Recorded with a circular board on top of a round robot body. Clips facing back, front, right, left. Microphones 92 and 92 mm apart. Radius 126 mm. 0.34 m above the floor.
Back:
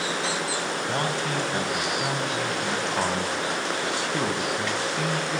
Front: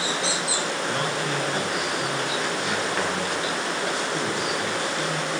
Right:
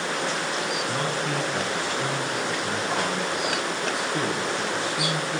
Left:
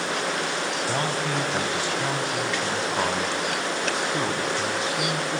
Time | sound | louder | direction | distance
0.9 | a man speaking | back 1 dB, left 1 dB | 125° left | 3.5 m